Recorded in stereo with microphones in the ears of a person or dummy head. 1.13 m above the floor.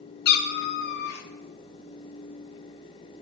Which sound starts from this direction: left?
A cat meowing, at 0.2 s.